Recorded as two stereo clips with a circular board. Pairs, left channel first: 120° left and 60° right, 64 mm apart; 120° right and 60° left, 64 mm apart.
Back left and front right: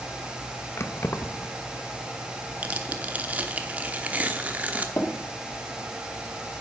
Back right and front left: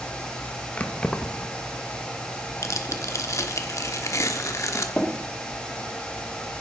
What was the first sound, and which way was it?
Keys jangling, 170° left.